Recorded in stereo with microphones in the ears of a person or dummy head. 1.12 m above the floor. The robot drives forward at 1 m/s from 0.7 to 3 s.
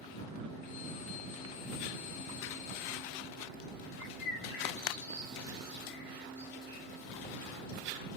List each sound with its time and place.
4.0 s a bird: 60° left (ahead or behind), 2 m